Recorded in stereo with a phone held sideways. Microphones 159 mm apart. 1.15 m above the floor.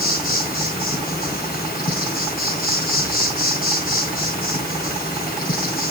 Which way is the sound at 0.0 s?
70° left (ahead or behind).